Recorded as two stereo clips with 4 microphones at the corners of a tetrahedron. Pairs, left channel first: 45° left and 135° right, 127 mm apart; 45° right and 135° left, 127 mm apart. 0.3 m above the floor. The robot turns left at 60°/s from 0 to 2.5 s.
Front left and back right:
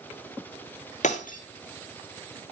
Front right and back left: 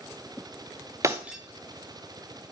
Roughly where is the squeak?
No squeak in this recording.